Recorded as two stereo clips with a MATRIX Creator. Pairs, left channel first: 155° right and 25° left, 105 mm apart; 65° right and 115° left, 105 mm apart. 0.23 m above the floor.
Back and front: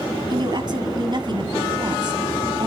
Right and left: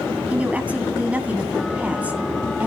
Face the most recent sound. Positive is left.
turn(degrees=40)